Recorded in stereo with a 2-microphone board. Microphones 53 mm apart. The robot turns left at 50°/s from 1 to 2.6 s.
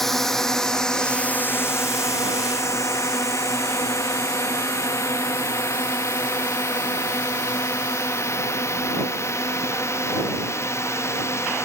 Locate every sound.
0.0 s a drone: 5° left (ahead or behind); by 11.7 s 60° left (ahead or behind)